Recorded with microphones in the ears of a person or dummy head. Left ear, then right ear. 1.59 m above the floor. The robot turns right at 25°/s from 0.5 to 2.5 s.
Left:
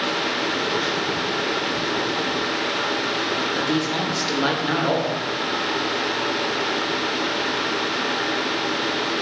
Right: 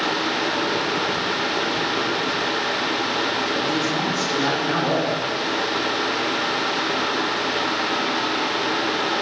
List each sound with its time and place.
3.5 s a man speaking: 35° left (ahead or behind), 0.6 m